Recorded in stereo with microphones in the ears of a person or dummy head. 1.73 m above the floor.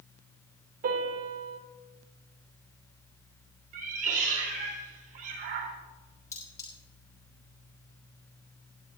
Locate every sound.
0.8 s a piano: 45° right (ahead or behind), 3 m
3.7 s a cat meowing: 45° right (ahead or behind), 4 m
6.3 s cutlery clinking: 20° left (ahead or behind), 5 m